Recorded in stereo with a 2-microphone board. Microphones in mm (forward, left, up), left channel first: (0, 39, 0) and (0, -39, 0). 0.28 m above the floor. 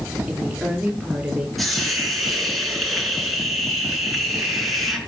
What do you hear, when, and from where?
0.3 s a woman speaking: 5° right (ahead or behind), 6.5 m; by 1.5 s 10° right (ahead or behind), 6.5 m
1.6 s a hiss: centre (ahead or behind), 4 m